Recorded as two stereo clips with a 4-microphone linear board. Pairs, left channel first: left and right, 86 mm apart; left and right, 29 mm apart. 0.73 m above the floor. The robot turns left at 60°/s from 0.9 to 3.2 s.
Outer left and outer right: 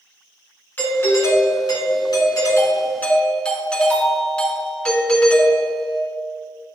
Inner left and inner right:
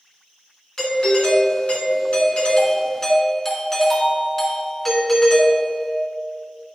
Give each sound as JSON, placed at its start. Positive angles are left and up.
{"t": 0.8, "sound": "a doorbell", "azimuth_deg": 150, "distance_m": 2.5}